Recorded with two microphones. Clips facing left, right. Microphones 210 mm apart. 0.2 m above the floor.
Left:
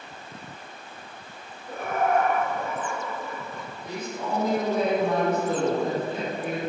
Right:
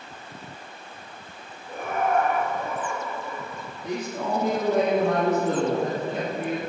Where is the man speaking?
55° right (ahead or behind), 3 m.